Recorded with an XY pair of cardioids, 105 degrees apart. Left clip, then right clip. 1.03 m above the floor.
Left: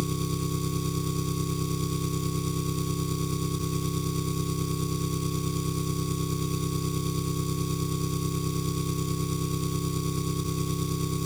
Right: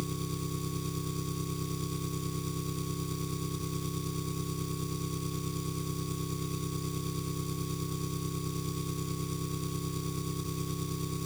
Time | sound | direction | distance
0.0 | an engine running | 40° left | ?